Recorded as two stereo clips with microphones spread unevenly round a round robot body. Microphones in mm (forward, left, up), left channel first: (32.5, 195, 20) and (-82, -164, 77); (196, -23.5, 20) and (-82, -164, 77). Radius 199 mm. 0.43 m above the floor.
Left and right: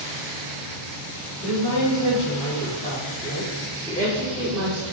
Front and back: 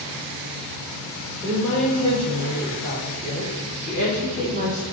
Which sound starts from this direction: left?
A woman speaking, at 1.4 s.